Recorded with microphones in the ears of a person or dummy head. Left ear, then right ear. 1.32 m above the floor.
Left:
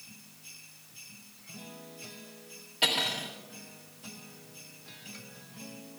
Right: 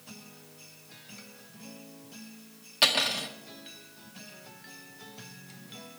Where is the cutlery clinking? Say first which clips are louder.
Right 3 dB; 55° right (ahead or behind), 1.9 m.